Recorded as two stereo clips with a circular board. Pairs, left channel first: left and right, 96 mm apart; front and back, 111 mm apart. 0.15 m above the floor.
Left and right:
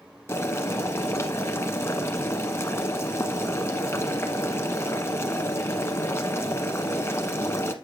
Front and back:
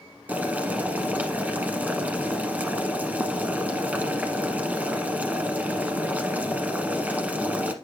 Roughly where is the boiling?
Behind left.